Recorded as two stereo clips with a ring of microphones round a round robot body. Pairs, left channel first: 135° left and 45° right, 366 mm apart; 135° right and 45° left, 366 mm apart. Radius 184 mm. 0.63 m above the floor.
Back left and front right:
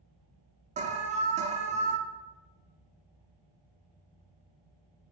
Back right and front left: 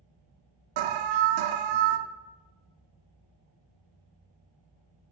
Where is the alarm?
25° left, 0.7 m.